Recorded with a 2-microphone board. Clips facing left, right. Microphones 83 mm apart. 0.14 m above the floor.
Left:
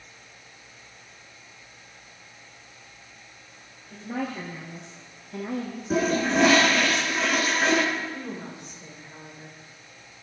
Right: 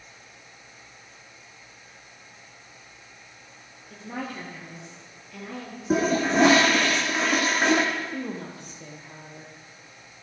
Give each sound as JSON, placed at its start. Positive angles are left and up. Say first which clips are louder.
{"t": 3.9, "sound": "a woman speaking", "louder": "left 3 dB", "side_deg": -5, "distance_m": 3.5}
{"t": 5.9, "sound": "a toilet flushing", "louder": "right 1 dB", "side_deg": -30, "distance_m": 3.5}
{"t": 8.1, "sound": "a woman speaking", "louder": "right 3 dB", "side_deg": -70, "distance_m": 4.0}